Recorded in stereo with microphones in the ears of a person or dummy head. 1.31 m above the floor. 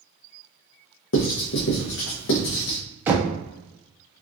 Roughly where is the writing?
Left.